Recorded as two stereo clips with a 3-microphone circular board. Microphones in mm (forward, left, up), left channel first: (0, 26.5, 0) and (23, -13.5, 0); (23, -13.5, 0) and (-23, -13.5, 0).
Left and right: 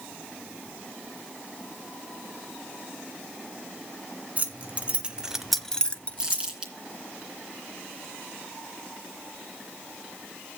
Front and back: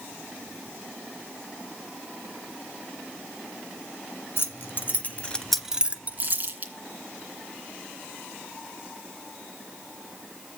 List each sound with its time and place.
4.4 s keys jangling: 15° right, 1.6 m; by 6.5 s 160° left, 1.4 m
6.2 s crumpling: 130° right, 2.5 m